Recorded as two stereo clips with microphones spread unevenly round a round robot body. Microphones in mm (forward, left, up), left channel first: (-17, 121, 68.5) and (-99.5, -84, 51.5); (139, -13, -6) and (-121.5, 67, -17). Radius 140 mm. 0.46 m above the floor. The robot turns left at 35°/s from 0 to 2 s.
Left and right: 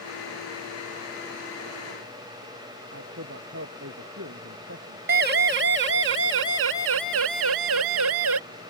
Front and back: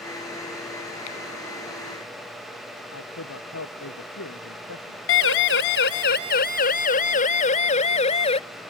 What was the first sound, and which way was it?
A man speaking, 65° right.